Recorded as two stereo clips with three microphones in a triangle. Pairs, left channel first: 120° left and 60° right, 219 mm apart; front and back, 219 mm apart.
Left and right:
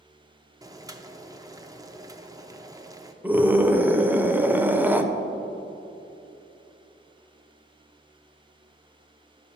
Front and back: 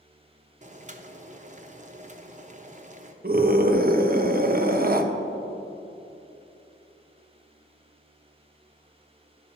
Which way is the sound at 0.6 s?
135° right.